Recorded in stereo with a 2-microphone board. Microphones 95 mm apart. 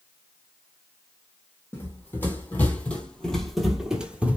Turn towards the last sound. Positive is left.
turn(degrees=-15)  # may be behind; listen again after turning